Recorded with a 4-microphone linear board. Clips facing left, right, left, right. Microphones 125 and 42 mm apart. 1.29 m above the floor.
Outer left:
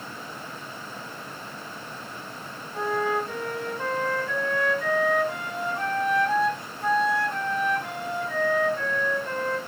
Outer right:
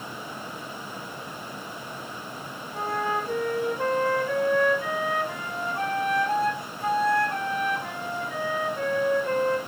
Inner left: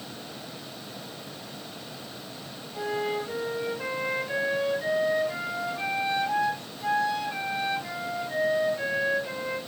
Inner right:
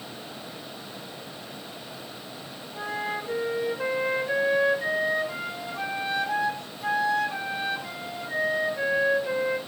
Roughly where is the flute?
Centre.